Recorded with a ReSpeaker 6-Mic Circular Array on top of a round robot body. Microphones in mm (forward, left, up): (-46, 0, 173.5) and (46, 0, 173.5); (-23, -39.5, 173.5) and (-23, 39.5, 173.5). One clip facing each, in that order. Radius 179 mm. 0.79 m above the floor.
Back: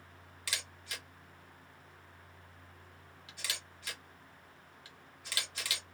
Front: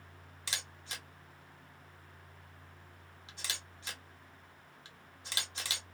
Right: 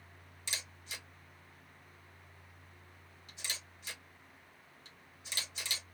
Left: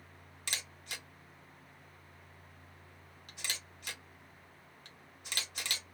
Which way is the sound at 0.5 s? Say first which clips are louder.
Even, left 2 dB; 65° left.